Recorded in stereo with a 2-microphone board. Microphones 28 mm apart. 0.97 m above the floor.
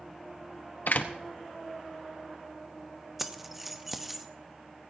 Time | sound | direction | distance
0.9 | a door slam | 75° left (ahead or behind) | 1.0 m
3.2 | keys jangling | 10° right (ahead or behind) | 0.7 m